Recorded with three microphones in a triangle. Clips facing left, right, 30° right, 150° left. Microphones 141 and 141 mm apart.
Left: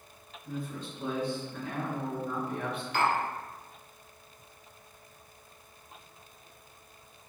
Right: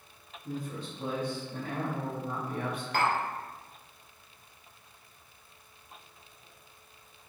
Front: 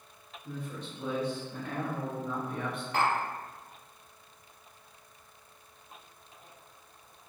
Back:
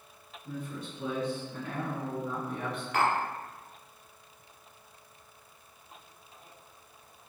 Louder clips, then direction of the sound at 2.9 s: Even, back 1 dB; 80° right.